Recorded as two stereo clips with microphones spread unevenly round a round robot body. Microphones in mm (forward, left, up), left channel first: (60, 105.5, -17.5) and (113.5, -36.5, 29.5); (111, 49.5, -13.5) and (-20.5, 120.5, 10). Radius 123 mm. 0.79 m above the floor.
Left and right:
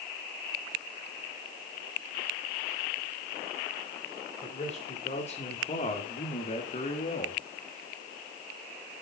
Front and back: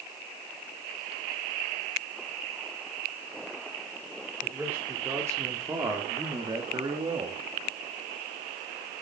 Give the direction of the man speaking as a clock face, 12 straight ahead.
10 o'clock.